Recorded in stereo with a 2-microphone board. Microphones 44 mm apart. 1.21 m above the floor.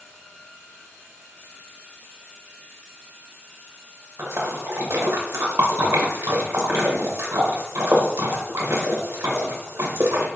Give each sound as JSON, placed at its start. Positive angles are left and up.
{"t": 4.2, "sound": "a splash", "side_deg": -60, "distance_m": 0.8}